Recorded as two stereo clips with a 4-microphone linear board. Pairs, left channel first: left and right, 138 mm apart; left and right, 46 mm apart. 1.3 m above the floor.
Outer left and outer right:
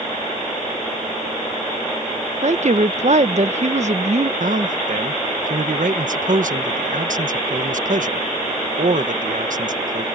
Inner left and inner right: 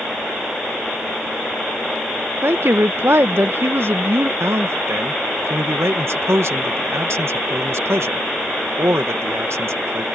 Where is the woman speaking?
60° right (ahead or behind).